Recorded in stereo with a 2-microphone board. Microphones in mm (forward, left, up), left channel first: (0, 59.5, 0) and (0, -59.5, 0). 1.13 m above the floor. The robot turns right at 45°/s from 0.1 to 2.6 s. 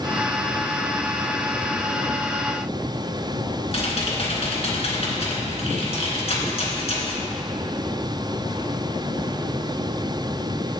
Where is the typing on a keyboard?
55° left (ahead or behind), 2.5 m.